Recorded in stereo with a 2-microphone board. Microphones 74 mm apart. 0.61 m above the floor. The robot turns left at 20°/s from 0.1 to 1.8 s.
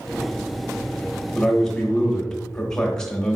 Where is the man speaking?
5° left (ahead or behind), 1.1 m; by 3.4 s 10° left (ahead or behind), 1.1 m.